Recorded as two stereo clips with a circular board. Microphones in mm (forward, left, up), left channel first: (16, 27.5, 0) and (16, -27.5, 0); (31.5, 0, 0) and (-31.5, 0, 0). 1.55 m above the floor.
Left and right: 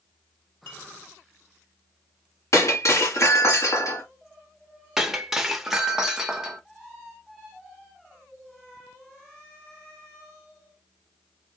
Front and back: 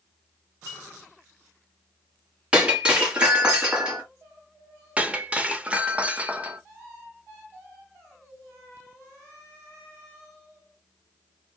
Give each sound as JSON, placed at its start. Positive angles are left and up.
{"t": 0.7, "sound": "a clink", "azimuth_deg": 140, "distance_m": 3.5}
{"t": 2.5, "sound": "breaking glass", "azimuth_deg": 110, "distance_m": 1.8}
{"t": 5.0, "sound": "breaking glass", "azimuth_deg": -160, "distance_m": 0.8}